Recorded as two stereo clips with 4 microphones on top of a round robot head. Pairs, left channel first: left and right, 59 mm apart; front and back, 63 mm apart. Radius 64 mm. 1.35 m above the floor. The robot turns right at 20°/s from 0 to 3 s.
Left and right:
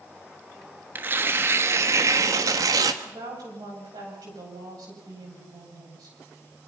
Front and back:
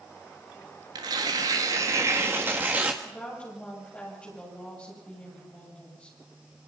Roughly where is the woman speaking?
Right.